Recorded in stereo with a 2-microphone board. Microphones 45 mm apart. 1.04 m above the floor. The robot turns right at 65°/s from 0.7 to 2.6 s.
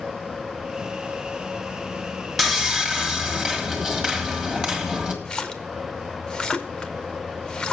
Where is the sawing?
5° right (ahead or behind), 1.5 m; by 5.2 s 15° right (ahead or behind), 1.5 m.